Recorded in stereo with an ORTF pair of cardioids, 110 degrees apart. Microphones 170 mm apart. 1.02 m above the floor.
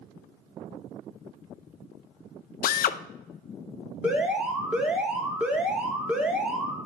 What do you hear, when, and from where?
2.6 s a drill: 60° left, 0.6 m
4.0 s an alarm: 5° right, 3 m